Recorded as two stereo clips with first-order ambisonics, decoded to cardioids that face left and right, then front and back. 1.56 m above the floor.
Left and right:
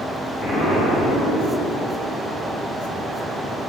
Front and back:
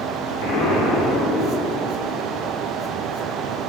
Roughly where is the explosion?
Ahead.